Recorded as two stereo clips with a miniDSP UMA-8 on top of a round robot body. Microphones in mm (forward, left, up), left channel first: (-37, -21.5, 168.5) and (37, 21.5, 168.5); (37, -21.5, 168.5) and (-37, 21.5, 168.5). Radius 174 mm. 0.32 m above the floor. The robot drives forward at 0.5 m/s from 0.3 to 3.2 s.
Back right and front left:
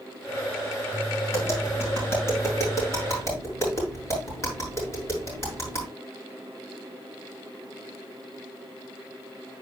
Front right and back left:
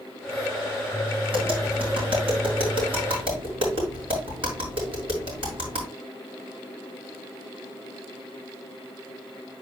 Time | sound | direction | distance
1.3 | tapping | 150° left | 5.5 m